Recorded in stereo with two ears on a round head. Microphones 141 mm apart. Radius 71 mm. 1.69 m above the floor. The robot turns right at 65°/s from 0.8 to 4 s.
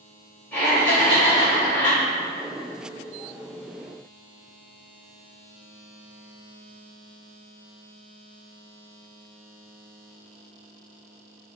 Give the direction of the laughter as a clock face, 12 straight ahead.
12 o'clock.